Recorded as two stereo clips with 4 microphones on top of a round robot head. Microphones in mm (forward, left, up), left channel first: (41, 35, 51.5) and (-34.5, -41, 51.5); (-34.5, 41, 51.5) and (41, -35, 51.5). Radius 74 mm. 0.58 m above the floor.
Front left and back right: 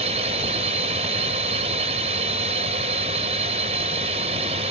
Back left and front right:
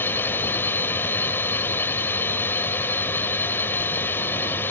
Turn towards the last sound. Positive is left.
turn(degrees=-155)